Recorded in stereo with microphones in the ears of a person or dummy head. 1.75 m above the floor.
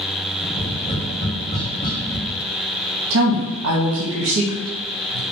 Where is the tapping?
45° left (ahead or behind), 1.7 m.